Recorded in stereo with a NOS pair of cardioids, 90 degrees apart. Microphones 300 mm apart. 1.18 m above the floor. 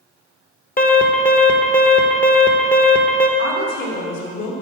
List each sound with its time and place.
0.8 s an alarm: 30° left, 1.2 m
3.4 s a woman speaking: 60° left, 3 m